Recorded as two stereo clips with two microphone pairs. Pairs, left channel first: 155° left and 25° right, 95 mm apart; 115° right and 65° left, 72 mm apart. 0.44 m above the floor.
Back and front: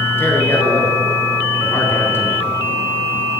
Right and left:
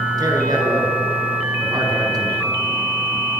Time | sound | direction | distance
0.2 | a man speaking | 90° left | 6.5 m